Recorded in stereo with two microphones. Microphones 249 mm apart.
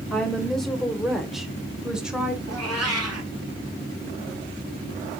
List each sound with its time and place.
0.1 s a woman speaking: centre (ahead or behind), 1.4 m; by 2.4 s 5° right (ahead or behind), 1.5 m
2.5 s a cat meowing: 80° right, 3 m